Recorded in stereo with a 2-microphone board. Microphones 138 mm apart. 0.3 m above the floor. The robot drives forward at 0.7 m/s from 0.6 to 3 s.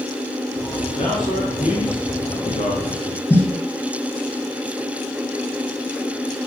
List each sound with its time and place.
1.0 s a man speaking: 35° left (ahead or behind), 5.5 m; by 3.2 s 45° left (ahead or behind), 4.5 m
3.3 s a snare drum: 20° left (ahead or behind), 7 m